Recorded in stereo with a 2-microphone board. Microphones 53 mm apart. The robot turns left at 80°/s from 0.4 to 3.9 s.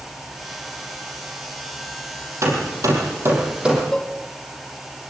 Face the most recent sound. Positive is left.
turn(degrees=15)  # may be behind; listen again after turning